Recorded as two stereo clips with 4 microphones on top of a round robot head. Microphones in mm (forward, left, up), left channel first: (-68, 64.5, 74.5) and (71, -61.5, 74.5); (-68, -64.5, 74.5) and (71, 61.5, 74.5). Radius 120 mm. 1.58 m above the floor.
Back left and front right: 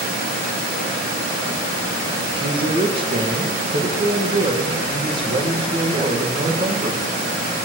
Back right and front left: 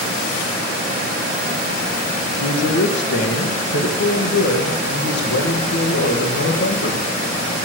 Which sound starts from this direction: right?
A man speaking, at 2.3 s.